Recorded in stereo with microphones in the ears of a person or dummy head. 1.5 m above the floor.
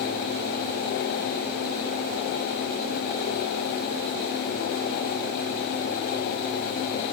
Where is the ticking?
No ticking in this recording.